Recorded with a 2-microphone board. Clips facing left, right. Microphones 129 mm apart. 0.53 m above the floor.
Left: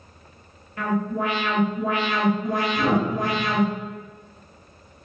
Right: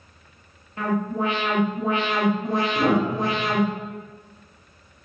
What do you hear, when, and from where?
0.8 s an alarm: 25° right (ahead or behind), 0.8 m
2.8 s a piano: 45° right (ahead or behind), 1.1 m